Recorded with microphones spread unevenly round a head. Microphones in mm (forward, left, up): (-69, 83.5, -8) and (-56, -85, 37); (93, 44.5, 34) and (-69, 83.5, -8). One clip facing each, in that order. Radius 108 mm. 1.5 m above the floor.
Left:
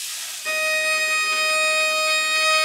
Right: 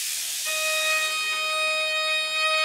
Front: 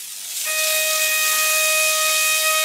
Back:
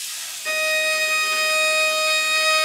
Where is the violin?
125° left, 1.1 m.